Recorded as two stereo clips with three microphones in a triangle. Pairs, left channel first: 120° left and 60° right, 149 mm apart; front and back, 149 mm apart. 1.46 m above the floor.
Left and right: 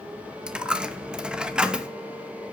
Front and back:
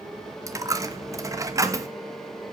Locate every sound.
0.5 s a dropped coin: 140° right, 0.8 m